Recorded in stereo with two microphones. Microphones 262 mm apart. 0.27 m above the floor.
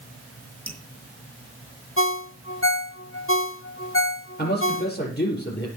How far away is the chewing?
No chewing in this recording.